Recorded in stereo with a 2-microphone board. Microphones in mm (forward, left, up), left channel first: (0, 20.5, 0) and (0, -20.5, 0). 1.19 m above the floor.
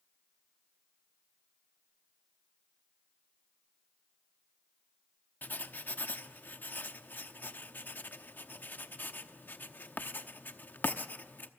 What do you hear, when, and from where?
5.4 s writing: 55° left (ahead or behind), 0.9 m